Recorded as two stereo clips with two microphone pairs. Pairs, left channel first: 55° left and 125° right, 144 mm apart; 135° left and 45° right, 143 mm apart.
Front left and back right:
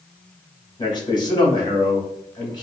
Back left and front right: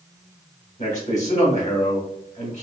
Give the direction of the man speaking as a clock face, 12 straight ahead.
8 o'clock.